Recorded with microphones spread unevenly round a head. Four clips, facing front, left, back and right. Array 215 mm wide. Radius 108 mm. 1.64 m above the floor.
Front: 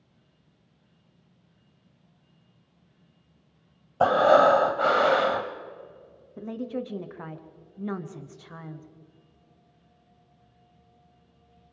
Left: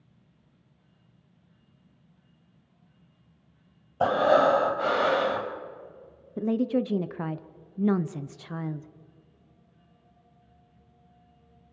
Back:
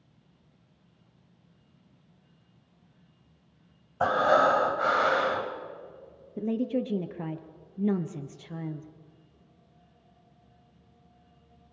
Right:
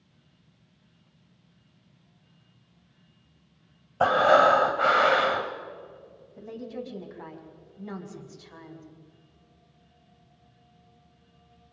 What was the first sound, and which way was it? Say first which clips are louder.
Breathing: right 2 dB, front 5 dB; straight ahead.